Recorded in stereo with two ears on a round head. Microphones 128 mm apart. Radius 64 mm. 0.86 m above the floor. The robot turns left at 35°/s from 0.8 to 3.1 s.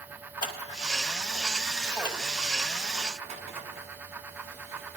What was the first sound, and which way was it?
Scissors, 30° left (ahead or behind).